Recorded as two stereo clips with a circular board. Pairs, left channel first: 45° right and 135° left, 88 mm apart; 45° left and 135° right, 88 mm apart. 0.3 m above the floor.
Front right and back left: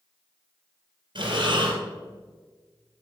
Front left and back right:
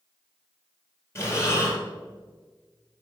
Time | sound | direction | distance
1.1 | breathing | 105° left | 3 m